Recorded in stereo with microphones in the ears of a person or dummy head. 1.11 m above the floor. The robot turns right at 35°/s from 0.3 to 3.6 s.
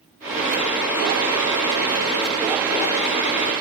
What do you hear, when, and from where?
Only background noise.